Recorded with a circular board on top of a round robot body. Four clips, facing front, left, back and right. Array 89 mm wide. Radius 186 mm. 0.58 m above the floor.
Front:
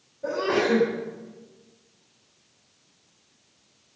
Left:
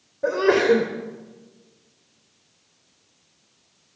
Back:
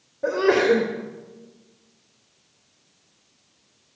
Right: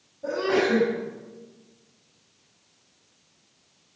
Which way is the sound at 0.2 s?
135° left.